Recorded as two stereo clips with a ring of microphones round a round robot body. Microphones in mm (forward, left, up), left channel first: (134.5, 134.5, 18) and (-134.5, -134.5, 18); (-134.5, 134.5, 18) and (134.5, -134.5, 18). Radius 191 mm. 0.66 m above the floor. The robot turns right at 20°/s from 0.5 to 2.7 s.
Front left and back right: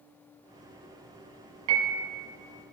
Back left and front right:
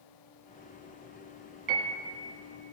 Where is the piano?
105° right, 1.7 m; by 2.1 s 100° right, 1.7 m.